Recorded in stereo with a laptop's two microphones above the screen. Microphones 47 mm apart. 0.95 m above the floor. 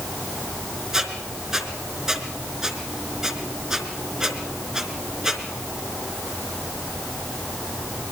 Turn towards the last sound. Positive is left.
turn(degrees=-10)  # may be behind; listen again after turning